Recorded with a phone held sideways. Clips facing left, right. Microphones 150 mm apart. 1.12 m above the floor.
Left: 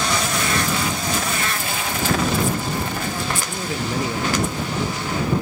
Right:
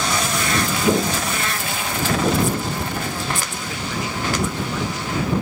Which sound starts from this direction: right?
Footsteps, at 0.8 s.